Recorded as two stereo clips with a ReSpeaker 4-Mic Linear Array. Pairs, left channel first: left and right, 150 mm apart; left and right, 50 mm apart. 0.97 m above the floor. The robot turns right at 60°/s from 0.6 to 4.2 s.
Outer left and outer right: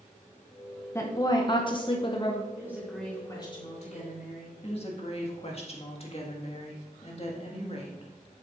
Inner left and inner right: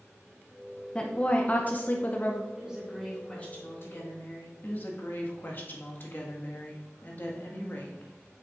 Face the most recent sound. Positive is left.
turn(degrees=40)  # may be behind; listen again after turning